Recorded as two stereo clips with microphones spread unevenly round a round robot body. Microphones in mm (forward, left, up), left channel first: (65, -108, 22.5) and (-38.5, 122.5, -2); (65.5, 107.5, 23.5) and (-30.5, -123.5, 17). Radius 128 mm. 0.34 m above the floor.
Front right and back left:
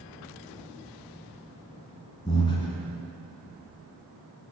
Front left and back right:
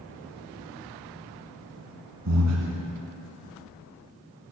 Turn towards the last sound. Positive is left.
turn(degrees=-140)